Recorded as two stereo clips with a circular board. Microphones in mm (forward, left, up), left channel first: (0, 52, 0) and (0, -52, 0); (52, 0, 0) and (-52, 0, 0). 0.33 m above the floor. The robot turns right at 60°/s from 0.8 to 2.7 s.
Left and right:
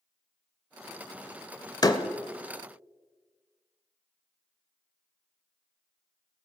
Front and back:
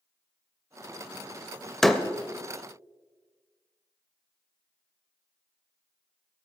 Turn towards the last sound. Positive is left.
turn(degrees=140)